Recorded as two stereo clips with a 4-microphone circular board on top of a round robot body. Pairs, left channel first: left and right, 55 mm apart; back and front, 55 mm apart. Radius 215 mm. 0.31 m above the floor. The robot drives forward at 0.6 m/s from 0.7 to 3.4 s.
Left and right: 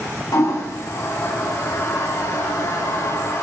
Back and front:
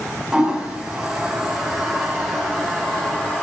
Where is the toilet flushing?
80° left, 3.5 m; by 3.4 s 105° left, 3.5 m.